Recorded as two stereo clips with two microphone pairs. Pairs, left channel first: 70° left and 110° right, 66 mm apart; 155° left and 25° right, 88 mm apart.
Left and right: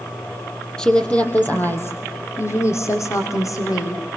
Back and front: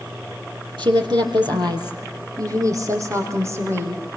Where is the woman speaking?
5° right, 3.5 m; by 4.0 s 40° left, 6.5 m.